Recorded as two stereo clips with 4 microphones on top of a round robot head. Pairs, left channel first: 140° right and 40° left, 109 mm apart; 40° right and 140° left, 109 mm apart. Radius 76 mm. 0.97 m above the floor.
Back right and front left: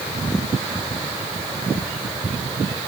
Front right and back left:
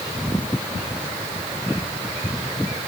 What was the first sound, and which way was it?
Only background noise.